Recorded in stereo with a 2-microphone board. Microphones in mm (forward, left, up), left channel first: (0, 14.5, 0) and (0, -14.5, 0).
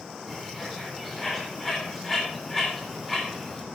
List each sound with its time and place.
0.3 s a bird: 5° left (ahead or behind), 7.5 m